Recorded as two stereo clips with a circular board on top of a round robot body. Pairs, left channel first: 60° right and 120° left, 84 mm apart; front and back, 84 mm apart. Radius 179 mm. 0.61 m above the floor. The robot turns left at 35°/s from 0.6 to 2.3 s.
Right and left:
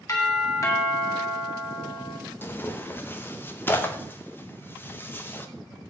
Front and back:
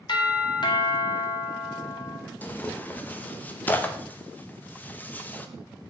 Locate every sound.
0.1 s a doorbell: 10° right, 2 m; by 2.2 s 65° right, 2 m
2.4 s tearing paper: 40° right, 1.1 m